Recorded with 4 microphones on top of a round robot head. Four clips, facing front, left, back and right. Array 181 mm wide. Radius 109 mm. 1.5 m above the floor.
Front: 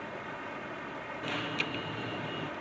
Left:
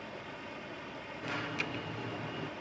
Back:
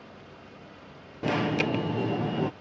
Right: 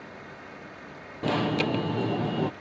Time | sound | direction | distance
0.0 | running water | 20° left | ?
1.2 | an alarm | 130° right | ?